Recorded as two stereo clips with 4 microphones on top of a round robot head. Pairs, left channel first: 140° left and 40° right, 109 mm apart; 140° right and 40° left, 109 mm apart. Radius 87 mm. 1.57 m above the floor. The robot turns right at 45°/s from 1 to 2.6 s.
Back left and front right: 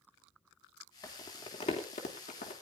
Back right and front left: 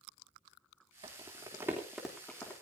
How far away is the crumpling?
About 3 m.